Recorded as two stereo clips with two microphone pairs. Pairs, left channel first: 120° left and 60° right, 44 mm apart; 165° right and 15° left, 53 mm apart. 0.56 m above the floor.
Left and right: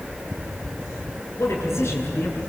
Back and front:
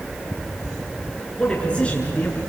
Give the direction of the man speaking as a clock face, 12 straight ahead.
8 o'clock.